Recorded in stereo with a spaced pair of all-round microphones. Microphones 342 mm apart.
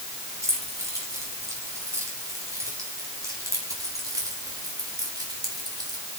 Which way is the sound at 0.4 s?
10° right (ahead or behind).